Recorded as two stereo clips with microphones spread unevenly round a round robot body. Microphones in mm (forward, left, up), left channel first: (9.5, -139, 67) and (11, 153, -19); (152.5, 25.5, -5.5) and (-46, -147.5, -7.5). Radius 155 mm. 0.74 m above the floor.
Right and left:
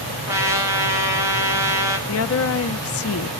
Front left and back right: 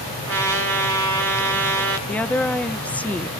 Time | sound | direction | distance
0.3 | a trumpet | 170° left | 4.5 m
2.1 | a woman speaking | 45° right | 0.9 m